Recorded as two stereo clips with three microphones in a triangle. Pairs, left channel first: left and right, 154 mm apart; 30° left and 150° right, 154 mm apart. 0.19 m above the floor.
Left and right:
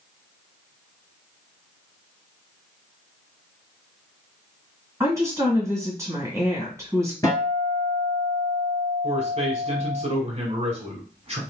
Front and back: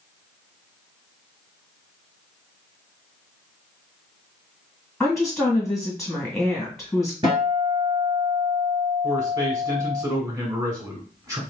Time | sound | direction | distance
5.0 | a woman speaking | 55° right | 1.6 m
7.2 | a guitar | 155° left | 1.9 m
9.0 | a man speaking | 90° right | 1.5 m